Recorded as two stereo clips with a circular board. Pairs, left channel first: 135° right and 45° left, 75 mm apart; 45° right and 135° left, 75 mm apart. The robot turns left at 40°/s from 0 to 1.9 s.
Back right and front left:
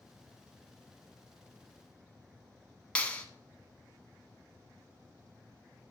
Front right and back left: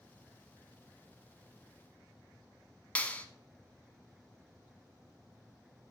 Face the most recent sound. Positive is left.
turn(degrees=-90)